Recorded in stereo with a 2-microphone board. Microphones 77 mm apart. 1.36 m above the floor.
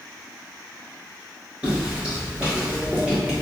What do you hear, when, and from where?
1.6 s footsteps: 15° right (ahead or behind), 1.5 m; by 3.4 s 20° right (ahead or behind), 1.4 m